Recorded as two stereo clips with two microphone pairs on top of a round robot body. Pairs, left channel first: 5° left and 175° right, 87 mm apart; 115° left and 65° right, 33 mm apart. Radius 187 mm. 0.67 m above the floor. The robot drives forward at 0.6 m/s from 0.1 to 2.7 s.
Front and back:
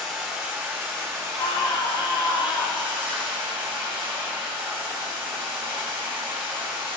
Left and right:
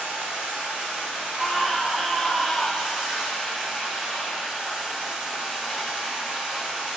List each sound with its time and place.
0.0 s running water: 85° right, 1.2 m; by 7.0 s 140° right, 1.8 m
1.4 s a scream: 25° left, 1.8 m; by 3.0 s 45° left, 1.2 m